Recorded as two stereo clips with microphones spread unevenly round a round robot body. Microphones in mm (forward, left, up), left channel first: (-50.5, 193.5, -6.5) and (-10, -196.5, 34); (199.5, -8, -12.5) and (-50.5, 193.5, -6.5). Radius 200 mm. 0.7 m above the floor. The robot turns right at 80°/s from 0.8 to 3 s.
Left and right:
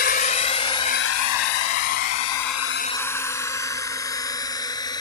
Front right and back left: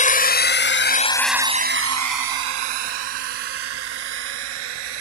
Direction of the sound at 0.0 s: 30° left.